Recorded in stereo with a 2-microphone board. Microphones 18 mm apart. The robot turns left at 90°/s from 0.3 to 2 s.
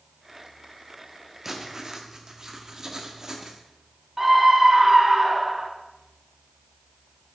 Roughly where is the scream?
Right.